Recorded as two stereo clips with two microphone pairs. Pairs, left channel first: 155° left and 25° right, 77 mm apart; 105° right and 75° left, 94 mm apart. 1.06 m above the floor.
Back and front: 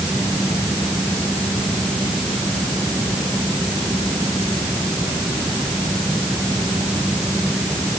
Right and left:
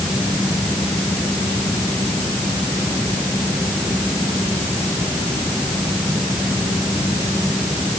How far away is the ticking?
I don't hear ticking.